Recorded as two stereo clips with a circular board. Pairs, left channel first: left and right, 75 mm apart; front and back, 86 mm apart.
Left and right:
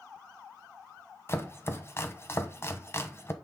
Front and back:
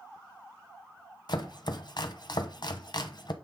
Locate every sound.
1.3 s chopping: 35° left, 1.0 m